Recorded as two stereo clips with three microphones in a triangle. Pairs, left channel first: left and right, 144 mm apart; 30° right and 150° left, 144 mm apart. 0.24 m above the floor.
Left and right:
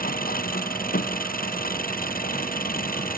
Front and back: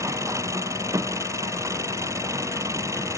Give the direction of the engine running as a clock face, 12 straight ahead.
9 o'clock.